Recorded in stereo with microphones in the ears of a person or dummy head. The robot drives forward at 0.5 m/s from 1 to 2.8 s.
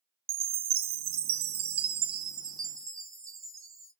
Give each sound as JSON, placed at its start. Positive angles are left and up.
{"t": 0.3, "sound": "a chime", "side_deg": -30, "distance_m": 0.6}